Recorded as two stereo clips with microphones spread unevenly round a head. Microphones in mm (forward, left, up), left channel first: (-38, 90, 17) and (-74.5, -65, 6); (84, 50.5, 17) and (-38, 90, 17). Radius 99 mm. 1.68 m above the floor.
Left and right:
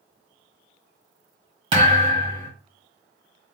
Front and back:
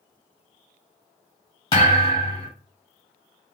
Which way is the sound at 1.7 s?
60° right.